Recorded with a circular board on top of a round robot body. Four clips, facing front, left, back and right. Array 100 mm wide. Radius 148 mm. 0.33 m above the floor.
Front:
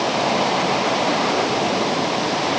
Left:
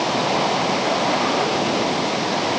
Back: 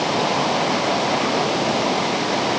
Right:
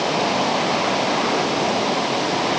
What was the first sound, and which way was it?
Only background noise.